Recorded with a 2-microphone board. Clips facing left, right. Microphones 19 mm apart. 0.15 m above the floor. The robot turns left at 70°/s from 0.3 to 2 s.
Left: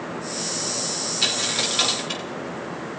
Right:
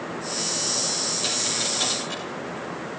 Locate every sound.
1.2 s a dropped coin: 75° left (ahead or behind), 4 m; by 2.2 s 50° left (ahead or behind), 4 m